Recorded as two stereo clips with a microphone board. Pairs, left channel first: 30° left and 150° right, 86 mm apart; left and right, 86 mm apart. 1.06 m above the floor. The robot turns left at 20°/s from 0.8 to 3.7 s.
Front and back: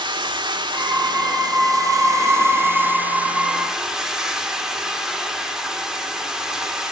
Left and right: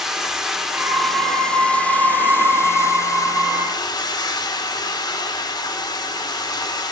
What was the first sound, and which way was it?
Running water, 175° right.